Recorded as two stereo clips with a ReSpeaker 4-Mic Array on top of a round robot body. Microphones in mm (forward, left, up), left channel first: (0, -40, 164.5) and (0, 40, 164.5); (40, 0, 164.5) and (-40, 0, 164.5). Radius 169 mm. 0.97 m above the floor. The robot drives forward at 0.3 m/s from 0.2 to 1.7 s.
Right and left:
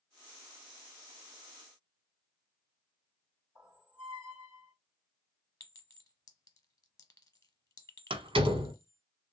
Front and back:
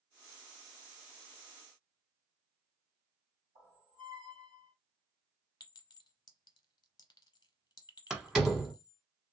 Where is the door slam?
95° left, 0.9 m.